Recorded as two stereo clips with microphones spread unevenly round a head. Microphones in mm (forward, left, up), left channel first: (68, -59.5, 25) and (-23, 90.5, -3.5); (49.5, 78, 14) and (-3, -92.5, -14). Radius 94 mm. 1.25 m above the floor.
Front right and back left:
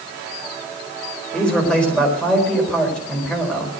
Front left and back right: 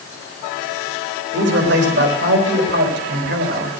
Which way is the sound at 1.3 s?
145° right.